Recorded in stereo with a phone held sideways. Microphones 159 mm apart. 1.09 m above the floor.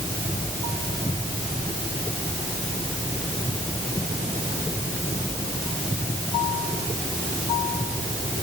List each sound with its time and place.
Only background noise.